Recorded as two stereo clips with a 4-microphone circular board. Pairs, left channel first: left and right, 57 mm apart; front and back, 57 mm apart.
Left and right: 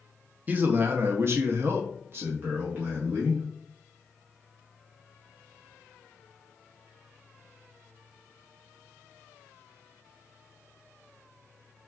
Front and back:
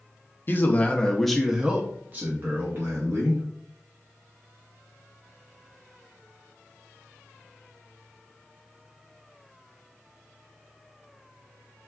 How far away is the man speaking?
About 0.7 m.